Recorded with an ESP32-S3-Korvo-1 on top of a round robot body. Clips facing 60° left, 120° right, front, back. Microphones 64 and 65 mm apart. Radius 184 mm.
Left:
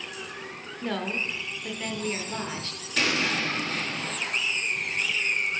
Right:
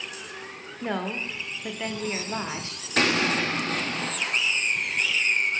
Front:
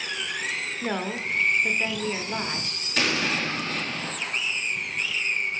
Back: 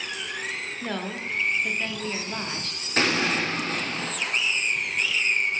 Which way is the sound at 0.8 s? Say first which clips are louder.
Right 1 dB, front 3 dB; 65° right.